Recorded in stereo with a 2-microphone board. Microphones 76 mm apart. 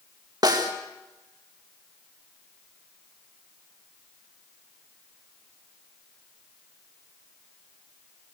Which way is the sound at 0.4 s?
65° right (ahead or behind).